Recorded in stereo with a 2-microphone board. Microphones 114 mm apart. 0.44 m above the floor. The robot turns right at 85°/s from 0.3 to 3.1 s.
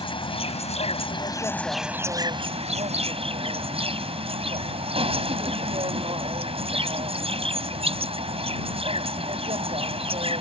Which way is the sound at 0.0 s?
55° left.